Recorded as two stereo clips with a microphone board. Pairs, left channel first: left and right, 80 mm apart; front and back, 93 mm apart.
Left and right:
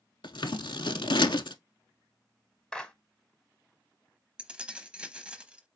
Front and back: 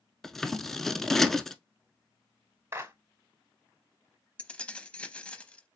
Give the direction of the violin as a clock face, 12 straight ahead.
I don't hear a violin.